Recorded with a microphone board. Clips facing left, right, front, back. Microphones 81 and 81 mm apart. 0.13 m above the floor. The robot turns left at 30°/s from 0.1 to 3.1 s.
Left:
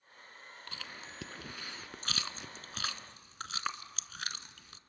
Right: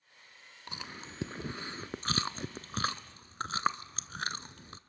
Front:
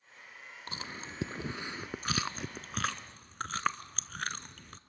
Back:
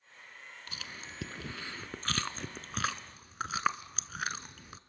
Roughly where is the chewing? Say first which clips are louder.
Right 4 dB, front 5 dB; ahead right.